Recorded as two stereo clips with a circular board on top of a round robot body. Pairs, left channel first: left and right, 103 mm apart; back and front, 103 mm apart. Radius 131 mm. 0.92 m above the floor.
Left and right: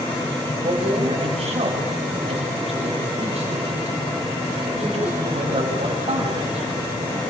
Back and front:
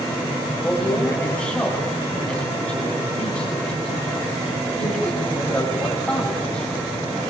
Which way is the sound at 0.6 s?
100° right.